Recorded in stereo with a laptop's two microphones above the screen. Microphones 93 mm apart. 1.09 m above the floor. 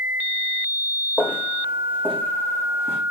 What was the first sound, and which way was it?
Footsteps, 15° left (ahead or behind).